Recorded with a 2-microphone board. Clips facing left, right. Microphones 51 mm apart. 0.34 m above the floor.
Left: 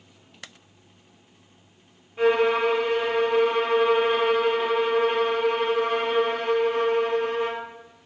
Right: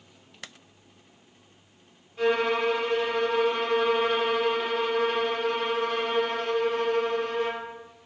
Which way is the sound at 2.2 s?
25° left (ahead or behind).